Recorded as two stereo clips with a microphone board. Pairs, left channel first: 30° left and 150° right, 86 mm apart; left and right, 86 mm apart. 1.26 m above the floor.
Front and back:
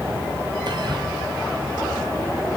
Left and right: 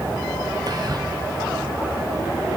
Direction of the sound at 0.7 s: 125° right.